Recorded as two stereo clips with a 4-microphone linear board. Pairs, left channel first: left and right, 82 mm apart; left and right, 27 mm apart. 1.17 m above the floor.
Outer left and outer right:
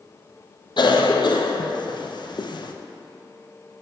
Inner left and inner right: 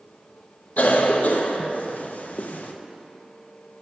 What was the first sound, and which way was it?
A cough, 60° left (ahead or behind).